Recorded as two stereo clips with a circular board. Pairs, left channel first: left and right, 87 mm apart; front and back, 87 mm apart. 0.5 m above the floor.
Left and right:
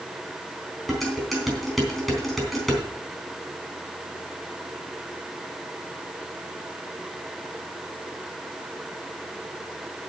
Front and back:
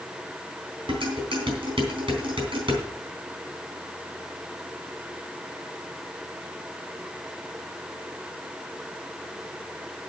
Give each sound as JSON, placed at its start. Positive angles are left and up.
{"t": 0.9, "sound": "dishes clattering", "azimuth_deg": 180, "distance_m": 3.5}